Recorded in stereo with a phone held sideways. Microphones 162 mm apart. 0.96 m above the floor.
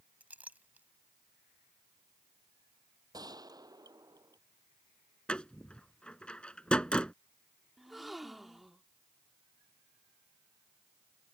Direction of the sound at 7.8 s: Centre (ahead or behind).